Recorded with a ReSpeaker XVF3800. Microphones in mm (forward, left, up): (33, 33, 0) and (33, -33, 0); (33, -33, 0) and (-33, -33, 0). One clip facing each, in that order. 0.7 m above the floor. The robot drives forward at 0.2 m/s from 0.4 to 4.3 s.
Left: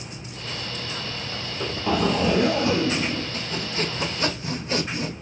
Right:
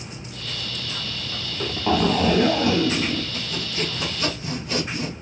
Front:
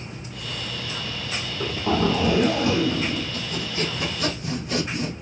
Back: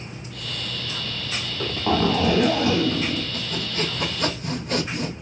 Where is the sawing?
140° left, 0.8 m; by 5.1 s 145° left, 1.0 m.